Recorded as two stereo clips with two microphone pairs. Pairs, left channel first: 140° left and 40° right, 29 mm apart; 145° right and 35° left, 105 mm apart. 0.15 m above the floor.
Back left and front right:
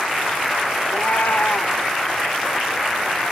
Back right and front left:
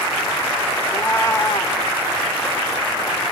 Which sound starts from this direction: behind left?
A cat meowing, at 0.9 s.